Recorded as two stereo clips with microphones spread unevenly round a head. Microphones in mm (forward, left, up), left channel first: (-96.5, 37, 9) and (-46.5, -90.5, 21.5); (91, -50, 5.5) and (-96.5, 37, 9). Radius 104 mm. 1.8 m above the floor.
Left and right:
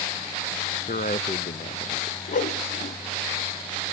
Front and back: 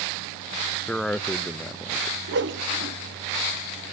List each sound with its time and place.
0.9 s a man speaking: 60° left, 0.5 m
2.3 s a whoosh: 130° left, 0.9 m